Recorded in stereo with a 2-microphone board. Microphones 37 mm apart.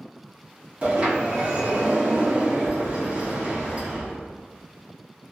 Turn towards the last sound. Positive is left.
turn(degrees=-35)  # may be behind; listen again after turning